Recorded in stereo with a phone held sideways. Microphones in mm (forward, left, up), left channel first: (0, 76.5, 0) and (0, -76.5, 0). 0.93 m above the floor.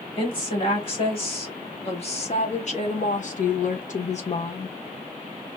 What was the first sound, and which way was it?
A woman speaking, 35° left (ahead or behind).